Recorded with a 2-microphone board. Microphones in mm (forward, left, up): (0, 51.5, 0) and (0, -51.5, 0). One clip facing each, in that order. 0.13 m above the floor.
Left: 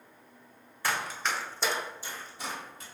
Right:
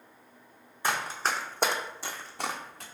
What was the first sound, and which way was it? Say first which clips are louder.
Running footsteps: right 2 dB; 20° right (ahead or behind).